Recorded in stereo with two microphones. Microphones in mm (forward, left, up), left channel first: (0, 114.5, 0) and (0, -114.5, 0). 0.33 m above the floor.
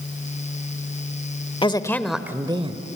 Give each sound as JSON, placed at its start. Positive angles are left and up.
{"t": 1.6, "sound": "a woman speaking", "side_deg": 20, "distance_m": 0.9}